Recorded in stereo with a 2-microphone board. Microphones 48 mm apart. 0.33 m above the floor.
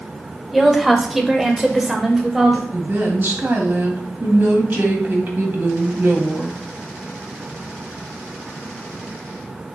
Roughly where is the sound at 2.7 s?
Right.